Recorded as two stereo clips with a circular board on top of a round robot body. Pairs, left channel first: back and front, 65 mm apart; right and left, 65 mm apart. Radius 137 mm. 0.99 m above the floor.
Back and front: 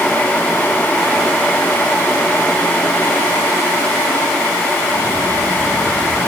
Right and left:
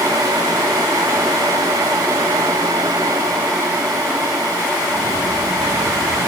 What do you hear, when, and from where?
Only background noise.